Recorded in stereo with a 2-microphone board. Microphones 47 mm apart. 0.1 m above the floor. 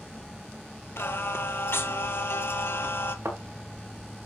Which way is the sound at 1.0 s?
55° left (ahead or behind).